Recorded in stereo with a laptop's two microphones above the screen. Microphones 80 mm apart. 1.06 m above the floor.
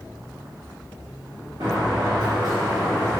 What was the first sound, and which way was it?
A sliding door, 65° right (ahead or behind).